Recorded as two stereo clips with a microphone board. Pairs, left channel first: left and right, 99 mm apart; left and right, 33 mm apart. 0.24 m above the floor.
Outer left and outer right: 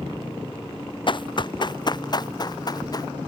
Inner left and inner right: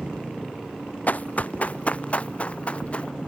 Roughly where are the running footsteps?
Left.